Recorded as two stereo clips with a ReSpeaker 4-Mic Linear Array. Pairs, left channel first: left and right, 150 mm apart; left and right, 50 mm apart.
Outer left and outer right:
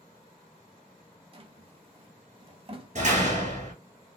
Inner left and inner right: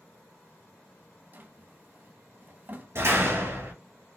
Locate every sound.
1.3 s a drawer: 40° right (ahead or behind), 0.8 m
3.0 s a door slam: 55° right (ahead or behind), 3 m